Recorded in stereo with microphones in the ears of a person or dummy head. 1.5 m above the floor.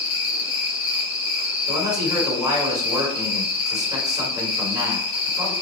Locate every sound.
0.0 s an insect: 60° left (ahead or behind), 1.0 m
1.7 s a man speaking: 25° right (ahead or behind), 1.2 m